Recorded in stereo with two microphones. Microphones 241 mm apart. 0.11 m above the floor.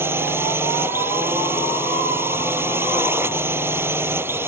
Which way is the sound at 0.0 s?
10° right (ahead or behind).